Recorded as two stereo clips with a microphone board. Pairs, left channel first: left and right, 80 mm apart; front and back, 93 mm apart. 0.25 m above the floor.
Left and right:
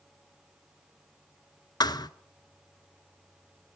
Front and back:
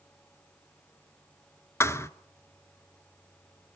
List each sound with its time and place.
1.8 s a thud: 60° left, 0.8 m